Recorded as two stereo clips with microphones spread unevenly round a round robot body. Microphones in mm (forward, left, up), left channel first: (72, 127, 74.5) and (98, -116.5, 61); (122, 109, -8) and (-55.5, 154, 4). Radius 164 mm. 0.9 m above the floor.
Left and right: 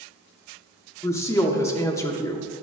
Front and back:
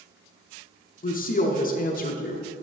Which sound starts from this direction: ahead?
A woman speaking, at 1.0 s.